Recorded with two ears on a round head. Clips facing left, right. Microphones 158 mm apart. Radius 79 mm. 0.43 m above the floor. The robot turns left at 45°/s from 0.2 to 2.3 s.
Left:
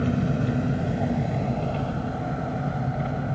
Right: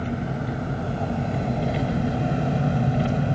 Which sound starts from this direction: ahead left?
An engine running, at 0.0 s.